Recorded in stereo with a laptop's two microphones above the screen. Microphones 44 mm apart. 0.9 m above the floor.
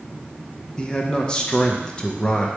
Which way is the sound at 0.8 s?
20° left (ahead or behind).